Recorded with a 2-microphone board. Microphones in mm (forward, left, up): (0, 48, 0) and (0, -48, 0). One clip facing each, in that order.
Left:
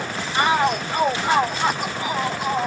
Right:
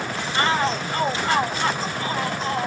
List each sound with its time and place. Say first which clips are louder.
0.3 s a shout: left 3 dB; 15° left (ahead or behind); by 2.7 s 10° left (ahead or behind)